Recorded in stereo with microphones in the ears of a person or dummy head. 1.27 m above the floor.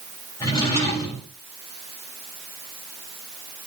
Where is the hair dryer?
No hair dryer in this recording.